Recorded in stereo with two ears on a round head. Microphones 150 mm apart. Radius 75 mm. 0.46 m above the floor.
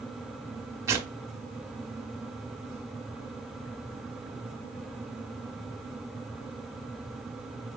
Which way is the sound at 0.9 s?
15° right (ahead or behind).